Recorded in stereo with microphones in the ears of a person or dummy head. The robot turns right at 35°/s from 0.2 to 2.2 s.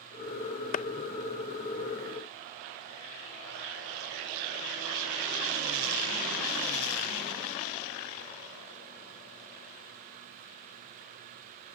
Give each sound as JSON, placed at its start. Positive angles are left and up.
{"t": 0.7, "sound": "a clap", "side_deg": 45}